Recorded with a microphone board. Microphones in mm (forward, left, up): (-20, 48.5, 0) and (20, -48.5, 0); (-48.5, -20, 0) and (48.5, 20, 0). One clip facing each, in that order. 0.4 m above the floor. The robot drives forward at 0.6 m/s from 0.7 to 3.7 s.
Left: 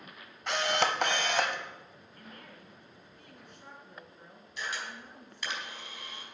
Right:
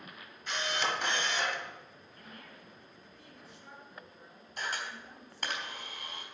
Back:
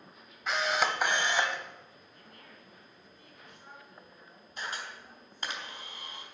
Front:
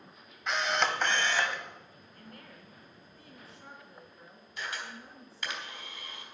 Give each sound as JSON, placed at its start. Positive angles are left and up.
{"t": 0.5, "sound": "a camera shutter", "azimuth_deg": 115, "distance_m": 1.1}
{"t": 2.1, "sound": "a woman speaking", "azimuth_deg": 65, "distance_m": 4.0}
{"t": 4.6, "sound": "a camera shutter", "azimuth_deg": -105, "distance_m": 3.5}